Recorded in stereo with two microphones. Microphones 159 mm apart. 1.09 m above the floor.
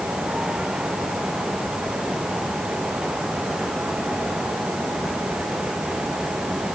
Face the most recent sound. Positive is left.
No sound to turn to.